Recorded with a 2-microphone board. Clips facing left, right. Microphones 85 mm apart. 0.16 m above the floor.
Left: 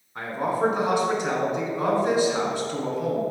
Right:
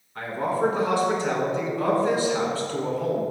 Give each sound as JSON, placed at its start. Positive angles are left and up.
{"t": 0.1, "sound": "a man speaking", "side_deg": 20, "distance_m": 1.5}